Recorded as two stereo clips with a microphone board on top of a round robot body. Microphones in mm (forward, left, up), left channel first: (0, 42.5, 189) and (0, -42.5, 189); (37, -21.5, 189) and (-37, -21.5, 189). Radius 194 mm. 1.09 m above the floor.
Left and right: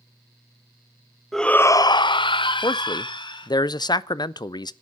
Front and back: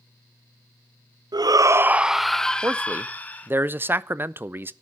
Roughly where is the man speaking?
Behind left.